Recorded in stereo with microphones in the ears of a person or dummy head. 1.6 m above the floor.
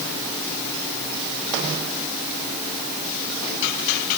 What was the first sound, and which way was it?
Only background noise.